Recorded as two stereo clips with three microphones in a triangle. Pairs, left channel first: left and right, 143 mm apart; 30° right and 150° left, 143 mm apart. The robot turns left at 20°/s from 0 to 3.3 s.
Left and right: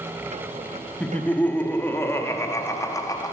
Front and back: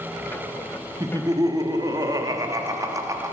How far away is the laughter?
About 0.6 m.